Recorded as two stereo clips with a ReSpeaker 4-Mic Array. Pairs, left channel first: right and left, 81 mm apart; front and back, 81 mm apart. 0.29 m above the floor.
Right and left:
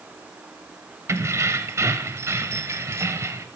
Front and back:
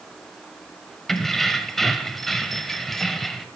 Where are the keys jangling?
85° left, 0.8 m.